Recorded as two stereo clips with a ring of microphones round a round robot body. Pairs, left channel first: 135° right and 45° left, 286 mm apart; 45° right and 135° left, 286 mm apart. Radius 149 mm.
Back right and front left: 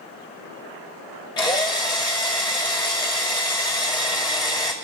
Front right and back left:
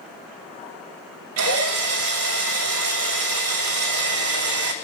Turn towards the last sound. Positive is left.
turn(degrees=155)